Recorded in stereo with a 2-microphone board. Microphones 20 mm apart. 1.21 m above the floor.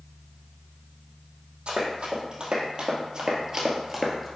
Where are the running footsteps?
65° right (ahead or behind), 3 m; by 4.3 s 5° right (ahead or behind), 1.5 m.